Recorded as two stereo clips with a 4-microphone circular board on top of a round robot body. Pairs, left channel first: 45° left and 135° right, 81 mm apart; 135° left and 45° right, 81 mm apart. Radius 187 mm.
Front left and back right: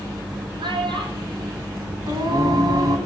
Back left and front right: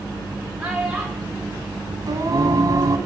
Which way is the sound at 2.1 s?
95° right.